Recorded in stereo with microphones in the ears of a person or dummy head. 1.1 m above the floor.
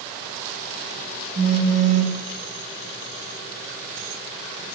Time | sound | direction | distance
1.4 | a phone buzzing | 85° right | 1.3 m